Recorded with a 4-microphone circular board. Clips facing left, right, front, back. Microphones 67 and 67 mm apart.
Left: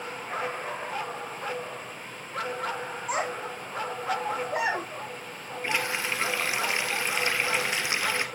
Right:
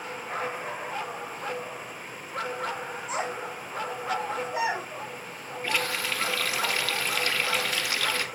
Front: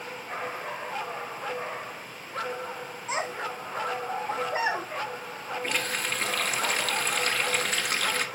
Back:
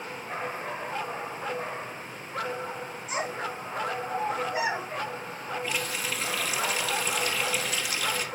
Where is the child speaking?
60° left, 5 m; by 4.8 s 50° left, 4.5 m.